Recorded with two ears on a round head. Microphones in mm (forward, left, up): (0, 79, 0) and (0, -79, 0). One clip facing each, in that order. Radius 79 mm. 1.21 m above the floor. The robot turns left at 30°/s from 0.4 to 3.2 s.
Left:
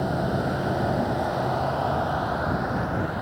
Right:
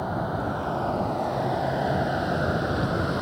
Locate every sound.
0.0 s a vehicle: 30° left; by 3.2 s 55° right